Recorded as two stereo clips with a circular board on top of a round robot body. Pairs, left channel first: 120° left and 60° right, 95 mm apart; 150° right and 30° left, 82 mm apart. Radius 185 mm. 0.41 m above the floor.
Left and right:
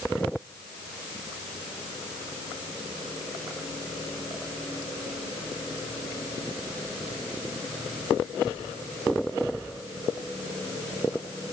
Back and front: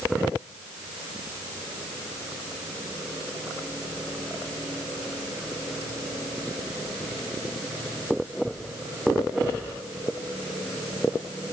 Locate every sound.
Only background noise.